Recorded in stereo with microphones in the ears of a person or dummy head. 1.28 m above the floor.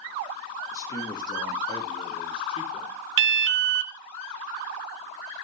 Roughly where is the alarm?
Right.